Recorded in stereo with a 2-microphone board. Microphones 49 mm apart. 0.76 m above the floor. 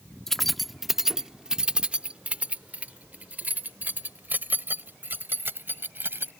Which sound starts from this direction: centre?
Keys jangling, at 0.3 s.